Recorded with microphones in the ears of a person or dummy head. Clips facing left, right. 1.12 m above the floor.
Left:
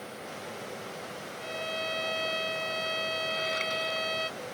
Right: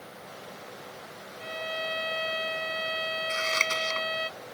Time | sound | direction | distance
1.4 | a violin | 10° right (ahead or behind) | ?
3.3 | scissors | 85° right | ?